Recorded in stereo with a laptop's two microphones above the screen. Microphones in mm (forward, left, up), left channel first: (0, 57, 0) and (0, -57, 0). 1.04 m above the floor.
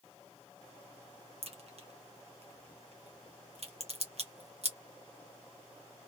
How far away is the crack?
About 0.9 m.